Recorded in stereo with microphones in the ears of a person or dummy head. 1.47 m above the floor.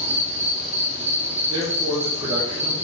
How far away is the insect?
About 0.8 m.